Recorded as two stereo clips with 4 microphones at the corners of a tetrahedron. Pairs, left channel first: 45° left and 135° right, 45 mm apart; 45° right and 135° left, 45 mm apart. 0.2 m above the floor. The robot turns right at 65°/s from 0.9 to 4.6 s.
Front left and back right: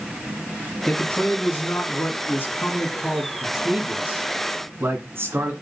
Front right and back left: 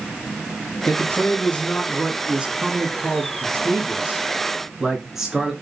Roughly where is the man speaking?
Ahead right.